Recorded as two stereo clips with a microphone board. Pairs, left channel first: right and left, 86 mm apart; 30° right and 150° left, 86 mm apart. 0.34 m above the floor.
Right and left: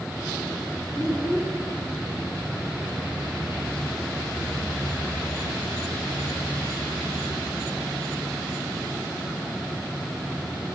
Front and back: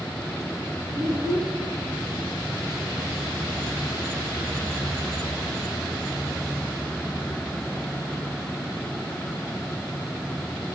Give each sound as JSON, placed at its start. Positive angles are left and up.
{"t": 1.0, "sound": "a child speaking", "azimuth_deg": -175, "distance_m": 2.0}